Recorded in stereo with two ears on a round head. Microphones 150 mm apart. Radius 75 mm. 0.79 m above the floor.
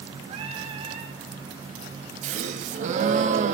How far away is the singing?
About 1.7 m.